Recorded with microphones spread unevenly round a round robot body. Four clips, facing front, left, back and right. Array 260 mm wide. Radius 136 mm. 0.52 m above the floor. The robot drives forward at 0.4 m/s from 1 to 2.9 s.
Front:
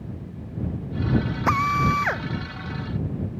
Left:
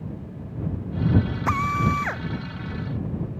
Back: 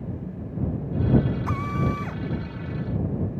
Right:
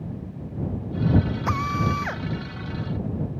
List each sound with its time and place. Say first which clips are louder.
1.5 s a drill: left 2 dB, front 6 dB; straight ahead